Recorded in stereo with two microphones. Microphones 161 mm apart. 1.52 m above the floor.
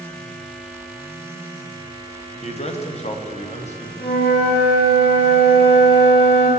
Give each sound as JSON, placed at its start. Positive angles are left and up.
{"t": 2.4, "sound": "a man speaking", "side_deg": 45, "distance_m": 1.0}
{"t": 4.0, "sound": "a flute", "side_deg": 85, "distance_m": 2.5}